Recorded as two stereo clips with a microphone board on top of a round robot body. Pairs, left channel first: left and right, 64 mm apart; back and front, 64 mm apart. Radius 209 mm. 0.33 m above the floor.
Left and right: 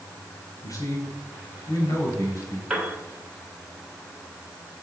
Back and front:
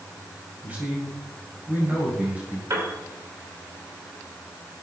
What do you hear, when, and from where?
0.6 s a man speaking: 65° left, 2.5 m
2.7 s a piano: 10° right, 2.5 m